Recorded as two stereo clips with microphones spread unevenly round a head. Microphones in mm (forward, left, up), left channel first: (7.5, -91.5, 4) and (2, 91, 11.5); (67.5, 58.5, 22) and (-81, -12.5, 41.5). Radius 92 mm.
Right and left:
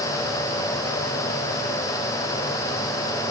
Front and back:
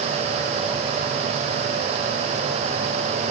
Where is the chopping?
I don't hear chopping.